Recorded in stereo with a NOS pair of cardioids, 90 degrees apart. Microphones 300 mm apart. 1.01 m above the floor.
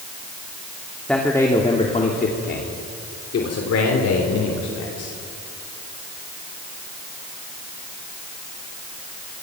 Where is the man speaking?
5° left, 2.5 m; by 5.1 s 70° left, 4.5 m.